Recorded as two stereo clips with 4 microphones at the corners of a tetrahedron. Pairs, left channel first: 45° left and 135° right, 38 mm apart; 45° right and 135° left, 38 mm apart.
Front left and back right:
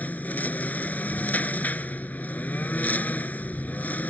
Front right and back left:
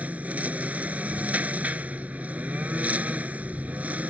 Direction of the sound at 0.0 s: 90° left.